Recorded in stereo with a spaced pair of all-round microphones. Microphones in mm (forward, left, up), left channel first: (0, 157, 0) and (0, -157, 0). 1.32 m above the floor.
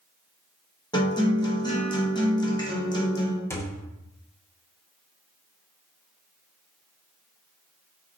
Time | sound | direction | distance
0.9 | a guitar | 15° left (ahead or behind) | 0.9 m
3.5 | a thud | 10° left (ahead or behind) | 0.7 m